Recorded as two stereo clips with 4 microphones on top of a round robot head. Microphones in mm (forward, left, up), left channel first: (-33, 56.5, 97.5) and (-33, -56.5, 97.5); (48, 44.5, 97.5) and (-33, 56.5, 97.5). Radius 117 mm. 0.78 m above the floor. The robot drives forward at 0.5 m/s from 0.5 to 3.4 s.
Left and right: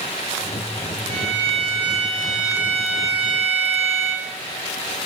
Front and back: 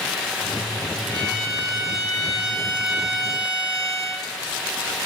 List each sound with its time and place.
1.1 s a violin: 85° right, 1.6 m; by 4.3 s 125° right, 1.9 m